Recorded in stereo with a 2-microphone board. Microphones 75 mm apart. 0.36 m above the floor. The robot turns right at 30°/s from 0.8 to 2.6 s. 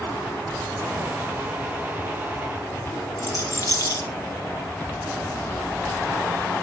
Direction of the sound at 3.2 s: 50° left (ahead or behind).